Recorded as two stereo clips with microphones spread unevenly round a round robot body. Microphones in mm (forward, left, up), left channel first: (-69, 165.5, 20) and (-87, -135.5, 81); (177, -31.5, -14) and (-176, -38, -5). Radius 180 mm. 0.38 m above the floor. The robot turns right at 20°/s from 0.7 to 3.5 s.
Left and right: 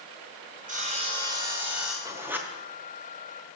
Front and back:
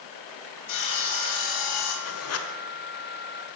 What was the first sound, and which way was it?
Sawing, 25° right.